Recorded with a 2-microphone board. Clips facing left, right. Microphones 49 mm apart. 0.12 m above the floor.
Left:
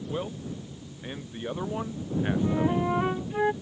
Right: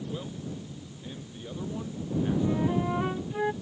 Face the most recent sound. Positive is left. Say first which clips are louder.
# left 2 dB
turn(degrees=15)  # may be behind; listen again after turning